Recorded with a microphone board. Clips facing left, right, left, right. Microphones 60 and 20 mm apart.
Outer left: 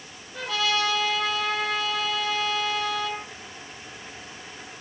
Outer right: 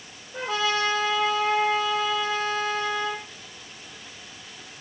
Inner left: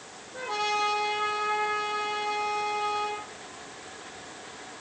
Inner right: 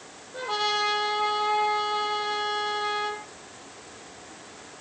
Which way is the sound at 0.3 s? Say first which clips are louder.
Outer right 1 dB, inner right 2 dB; 30° right (ahead or behind).